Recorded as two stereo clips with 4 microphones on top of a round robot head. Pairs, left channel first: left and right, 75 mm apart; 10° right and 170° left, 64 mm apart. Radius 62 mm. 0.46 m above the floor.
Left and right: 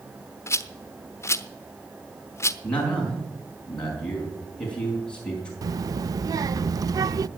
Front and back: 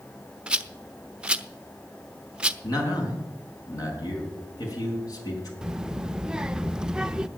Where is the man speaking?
10° left, 5 m.